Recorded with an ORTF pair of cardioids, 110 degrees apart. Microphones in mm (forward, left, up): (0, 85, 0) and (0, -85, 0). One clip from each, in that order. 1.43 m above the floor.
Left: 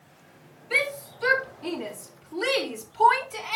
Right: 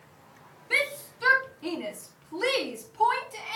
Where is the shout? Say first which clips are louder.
Left 1 dB; 25° right, 4 m; by 3.6 s 25° left, 3 m.